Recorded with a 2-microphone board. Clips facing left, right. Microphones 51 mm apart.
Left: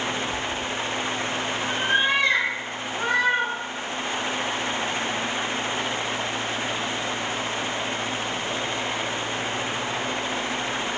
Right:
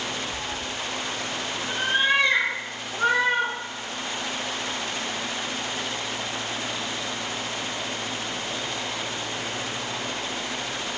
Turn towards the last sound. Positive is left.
turn(degrees=-15)  # may be behind; listen again after turning